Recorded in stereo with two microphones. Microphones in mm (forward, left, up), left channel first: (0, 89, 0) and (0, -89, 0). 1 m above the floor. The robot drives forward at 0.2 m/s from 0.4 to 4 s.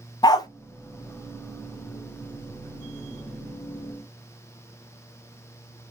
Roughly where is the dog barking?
Left.